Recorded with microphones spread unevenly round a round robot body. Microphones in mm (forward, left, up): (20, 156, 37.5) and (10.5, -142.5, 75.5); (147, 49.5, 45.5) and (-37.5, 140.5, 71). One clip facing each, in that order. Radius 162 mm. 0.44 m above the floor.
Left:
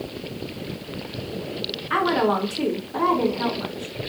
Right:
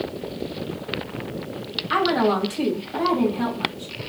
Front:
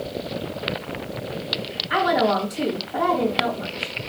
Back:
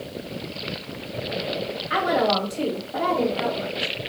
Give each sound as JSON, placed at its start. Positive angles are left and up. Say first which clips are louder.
{"t": 1.9, "sound": "a woman speaking", "louder": "right 1 dB, front 2 dB", "azimuth_deg": -120, "distance_m": 3.0}